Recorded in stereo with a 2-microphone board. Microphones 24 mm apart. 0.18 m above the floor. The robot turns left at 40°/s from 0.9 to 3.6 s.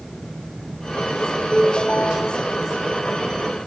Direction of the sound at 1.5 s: 150° left.